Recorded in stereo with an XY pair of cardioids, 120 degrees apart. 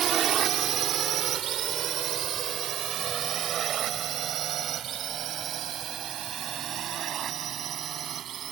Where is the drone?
60° right; by 8.5 s 55° right.